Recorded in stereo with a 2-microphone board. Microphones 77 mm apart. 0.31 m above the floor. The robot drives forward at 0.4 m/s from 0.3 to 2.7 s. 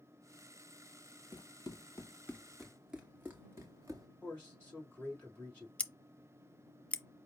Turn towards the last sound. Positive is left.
turn(degrees=15)  # may be behind; listen again after turning